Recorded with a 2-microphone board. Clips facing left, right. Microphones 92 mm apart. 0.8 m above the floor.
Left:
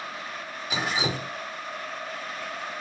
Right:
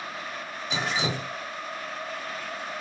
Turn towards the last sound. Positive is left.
turn(degrees=5)  # may be behind; listen again after turning